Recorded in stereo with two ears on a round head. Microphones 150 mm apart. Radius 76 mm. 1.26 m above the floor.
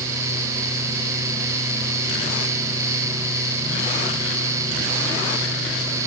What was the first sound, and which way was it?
Only background noise.